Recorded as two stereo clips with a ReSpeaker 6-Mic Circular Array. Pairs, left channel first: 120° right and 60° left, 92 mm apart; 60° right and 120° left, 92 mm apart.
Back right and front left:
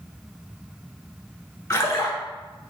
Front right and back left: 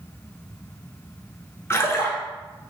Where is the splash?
95° right, 0.8 m.